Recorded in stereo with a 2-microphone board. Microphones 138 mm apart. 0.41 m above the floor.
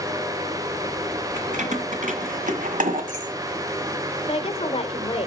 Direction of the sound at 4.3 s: 45° left (ahead or behind).